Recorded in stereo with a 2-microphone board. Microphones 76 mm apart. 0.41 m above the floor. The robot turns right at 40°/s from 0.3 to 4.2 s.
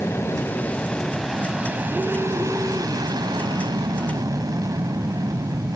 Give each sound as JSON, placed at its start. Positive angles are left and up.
{"t": 0.0, "sound": "an aircraft", "azimuth_deg": 145}